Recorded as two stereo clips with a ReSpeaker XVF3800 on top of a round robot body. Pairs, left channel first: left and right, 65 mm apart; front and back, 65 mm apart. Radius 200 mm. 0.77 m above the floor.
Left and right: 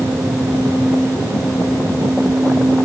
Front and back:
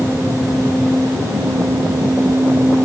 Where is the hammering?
I don't hear hammering.